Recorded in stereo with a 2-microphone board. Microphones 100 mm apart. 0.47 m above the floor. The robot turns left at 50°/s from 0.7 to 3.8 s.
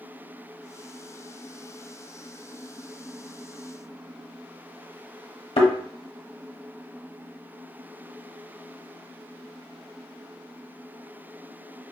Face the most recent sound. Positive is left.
turn(degrees=75)  # may be behind; listen again after turning